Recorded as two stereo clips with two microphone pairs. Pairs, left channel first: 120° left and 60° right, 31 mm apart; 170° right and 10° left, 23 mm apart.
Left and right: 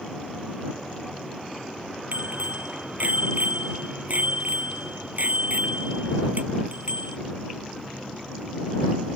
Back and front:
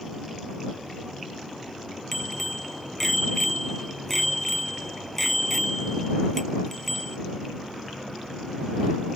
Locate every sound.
2.1 s a bicycle bell: 95° right